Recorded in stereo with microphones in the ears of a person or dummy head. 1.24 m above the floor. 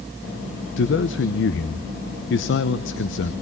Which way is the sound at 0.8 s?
60° left (ahead or behind).